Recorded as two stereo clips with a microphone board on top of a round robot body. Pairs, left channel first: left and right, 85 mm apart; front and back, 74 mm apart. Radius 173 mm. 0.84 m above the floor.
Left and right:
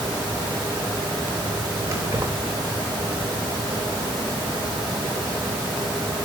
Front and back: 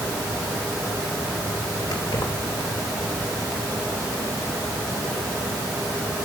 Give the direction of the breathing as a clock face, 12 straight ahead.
No breathing in this recording.